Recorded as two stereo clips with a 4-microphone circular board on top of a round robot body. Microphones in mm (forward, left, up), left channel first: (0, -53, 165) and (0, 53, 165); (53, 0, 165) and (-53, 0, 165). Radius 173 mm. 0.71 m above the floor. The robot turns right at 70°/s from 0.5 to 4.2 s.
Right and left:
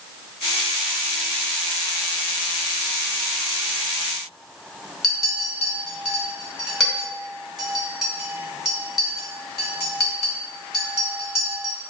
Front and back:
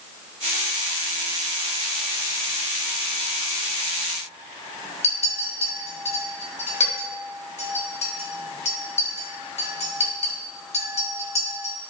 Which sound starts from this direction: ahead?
A clink, at 5.0 s.